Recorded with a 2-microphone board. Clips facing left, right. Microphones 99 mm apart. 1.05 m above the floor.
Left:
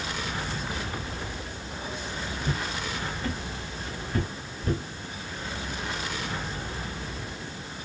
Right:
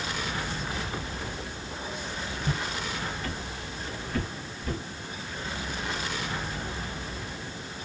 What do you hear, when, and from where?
2.4 s footsteps: centre (ahead or behind), 1.6 m; by 4.8 s 40° left (ahead or behind), 1.3 m